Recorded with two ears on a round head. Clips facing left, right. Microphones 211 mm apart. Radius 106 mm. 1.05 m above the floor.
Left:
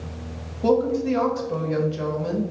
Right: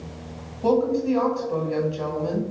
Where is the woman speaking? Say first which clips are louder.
Even; 25° left (ahead or behind), 1.3 m.